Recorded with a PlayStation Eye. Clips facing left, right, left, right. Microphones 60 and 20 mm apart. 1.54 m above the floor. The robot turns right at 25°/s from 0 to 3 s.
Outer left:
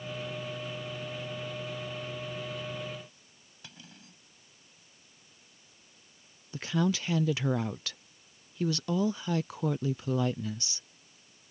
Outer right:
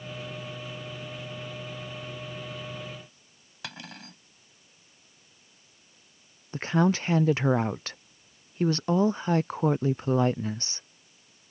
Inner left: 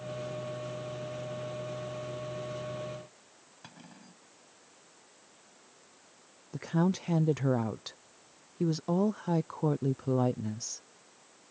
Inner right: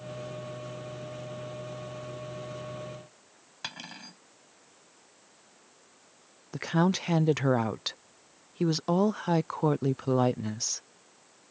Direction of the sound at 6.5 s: 40° right (ahead or behind).